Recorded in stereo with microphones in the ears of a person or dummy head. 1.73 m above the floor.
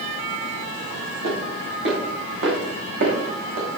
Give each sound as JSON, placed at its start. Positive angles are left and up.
{"t": 1.2, "sound": "footsteps", "side_deg": -70, "distance_m": 5.5}